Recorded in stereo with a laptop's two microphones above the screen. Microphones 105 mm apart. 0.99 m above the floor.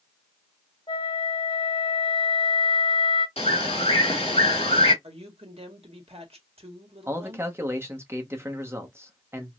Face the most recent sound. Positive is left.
turn(degrees=-25)  # may be behind; listen again after turning